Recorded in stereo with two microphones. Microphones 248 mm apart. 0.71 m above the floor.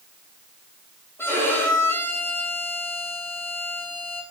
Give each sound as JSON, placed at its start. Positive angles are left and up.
{"t": 1.2, "sound": "a violin", "side_deg": 10, "distance_m": 5.5}